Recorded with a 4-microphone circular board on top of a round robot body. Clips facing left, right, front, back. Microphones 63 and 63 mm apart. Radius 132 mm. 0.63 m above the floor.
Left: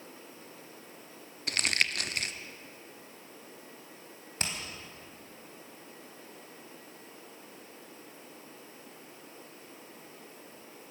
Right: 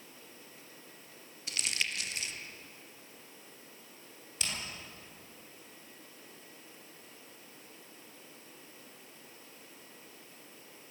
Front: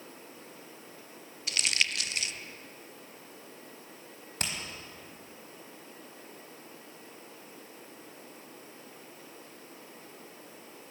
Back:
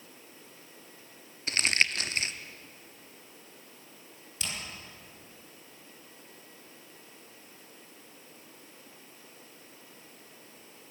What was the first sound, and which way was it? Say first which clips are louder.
Crumpling: left 6 dB, back 4 dB; 125° left.